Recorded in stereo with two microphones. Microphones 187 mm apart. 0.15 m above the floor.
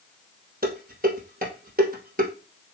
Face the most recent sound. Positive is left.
turn(degrees=-50)  # may be behind; listen again after turning